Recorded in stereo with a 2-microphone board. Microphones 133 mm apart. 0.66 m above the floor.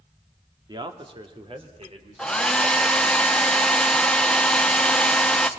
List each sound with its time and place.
0.7 s a man speaking: 30° right (ahead or behind), 1.7 m; by 3.2 s 50° right (ahead or behind), 4.5 m
2.2 s a hair dryer: 5° left (ahead or behind), 0.9 m